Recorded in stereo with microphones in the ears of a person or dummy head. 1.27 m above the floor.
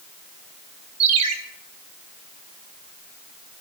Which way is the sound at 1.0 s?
35° right (ahead or behind).